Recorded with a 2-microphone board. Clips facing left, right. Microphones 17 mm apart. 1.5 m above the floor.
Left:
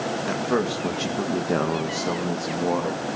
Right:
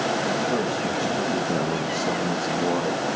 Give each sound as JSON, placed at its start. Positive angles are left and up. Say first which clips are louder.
{"t": 0.3, "sound": "a man speaking", "louder": "even", "side_deg": 80, "distance_m": 2.5}